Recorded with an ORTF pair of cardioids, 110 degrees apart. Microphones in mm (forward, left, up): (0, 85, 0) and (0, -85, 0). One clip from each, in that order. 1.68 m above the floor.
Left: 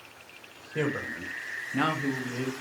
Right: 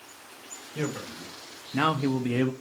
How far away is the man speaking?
About 0.9 m.